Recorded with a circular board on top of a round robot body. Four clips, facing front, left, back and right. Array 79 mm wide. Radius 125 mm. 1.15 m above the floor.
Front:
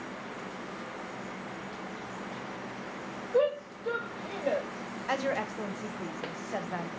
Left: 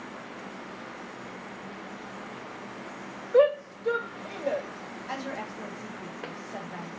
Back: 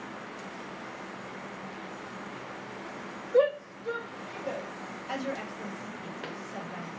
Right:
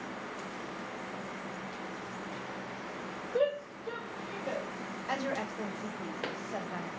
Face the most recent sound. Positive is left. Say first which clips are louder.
# right 1 dB, front 4 dB
turn(degrees=-10)